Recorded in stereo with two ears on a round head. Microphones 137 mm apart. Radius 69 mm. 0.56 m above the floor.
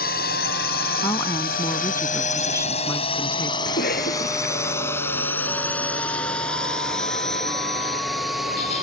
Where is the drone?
70° left (ahead or behind); by 8.8 s centre (ahead or behind).